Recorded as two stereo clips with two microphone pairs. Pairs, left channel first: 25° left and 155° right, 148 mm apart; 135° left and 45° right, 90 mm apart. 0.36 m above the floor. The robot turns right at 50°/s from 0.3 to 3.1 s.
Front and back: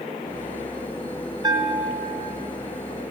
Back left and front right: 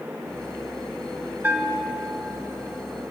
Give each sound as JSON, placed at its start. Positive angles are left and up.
{"t": 1.4, "sound": "a bell", "azimuth_deg": -110, "distance_m": 0.6}